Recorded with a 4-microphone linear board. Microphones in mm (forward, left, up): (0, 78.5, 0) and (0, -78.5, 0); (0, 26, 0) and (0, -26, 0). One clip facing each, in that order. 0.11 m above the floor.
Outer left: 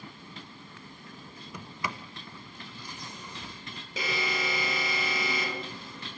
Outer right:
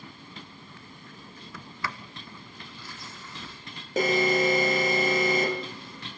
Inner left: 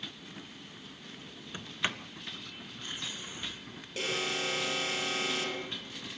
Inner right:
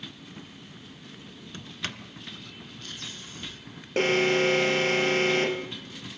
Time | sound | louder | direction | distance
1.5 | a sliding door | outer left 1 dB, inner left 3 dB | 20° left (ahead or behind) | 0.8 m
4.0 | an alarm | outer right 11 dB, inner right 11 dB | 45° right (ahead or behind) | 1.6 m